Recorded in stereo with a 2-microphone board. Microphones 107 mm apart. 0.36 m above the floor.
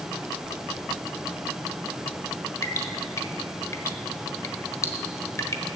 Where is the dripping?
25° left (ahead or behind), 1.2 m.